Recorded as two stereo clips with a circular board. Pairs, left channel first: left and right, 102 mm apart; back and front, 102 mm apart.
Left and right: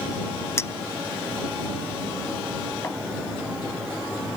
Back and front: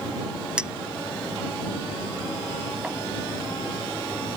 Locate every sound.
0.6 s a clink: 70° left